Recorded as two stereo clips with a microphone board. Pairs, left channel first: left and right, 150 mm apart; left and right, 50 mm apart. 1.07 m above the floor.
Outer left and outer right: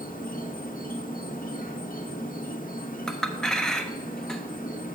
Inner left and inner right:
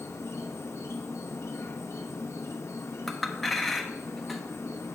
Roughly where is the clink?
Centre.